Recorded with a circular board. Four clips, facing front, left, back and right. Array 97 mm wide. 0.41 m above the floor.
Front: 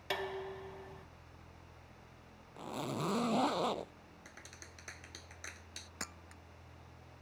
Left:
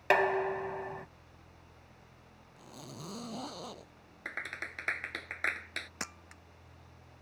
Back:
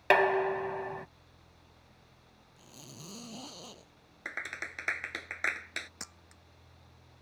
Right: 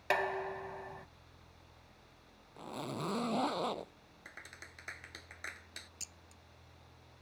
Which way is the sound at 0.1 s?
155° left.